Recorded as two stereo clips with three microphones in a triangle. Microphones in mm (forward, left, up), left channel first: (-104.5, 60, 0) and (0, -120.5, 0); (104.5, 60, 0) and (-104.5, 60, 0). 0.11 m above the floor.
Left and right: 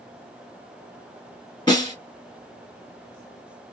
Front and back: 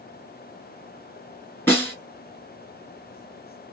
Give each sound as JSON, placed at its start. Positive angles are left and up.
{"t": 1.7, "sound": "a snare drum", "azimuth_deg": 70, "distance_m": 2.0}